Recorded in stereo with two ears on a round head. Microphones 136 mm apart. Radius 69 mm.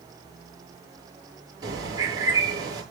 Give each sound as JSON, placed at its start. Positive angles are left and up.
{"t": 1.6, "sound": "a bird", "side_deg": -20, "distance_m": 6.5}